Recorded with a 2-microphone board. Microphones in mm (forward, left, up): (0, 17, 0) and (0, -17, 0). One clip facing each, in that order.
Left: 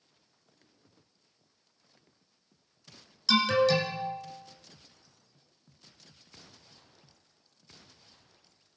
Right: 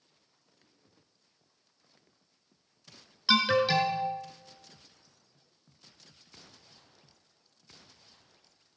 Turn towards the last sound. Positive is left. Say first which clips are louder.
# left 1 dB
turn(degrees=-25)  # may be behind; listen again after turning